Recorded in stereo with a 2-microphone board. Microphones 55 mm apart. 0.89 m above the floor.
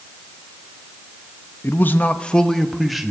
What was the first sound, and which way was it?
A man speaking, 45° left (ahead or behind).